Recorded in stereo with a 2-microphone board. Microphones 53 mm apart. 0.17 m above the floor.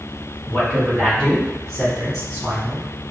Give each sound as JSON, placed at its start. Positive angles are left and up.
{"t": 0.5, "sound": "a man speaking", "side_deg": 35, "distance_m": 1.6}